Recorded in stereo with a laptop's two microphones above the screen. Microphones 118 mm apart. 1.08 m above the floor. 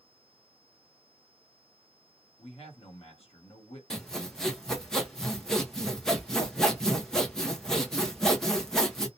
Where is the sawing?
5° left (ahead or behind), 0.8 m.